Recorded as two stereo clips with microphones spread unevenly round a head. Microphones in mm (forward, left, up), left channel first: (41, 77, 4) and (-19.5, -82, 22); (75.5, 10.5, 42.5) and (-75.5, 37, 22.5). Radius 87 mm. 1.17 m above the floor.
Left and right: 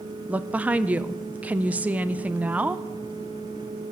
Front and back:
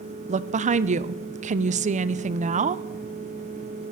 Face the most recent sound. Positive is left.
turn(degrees=165)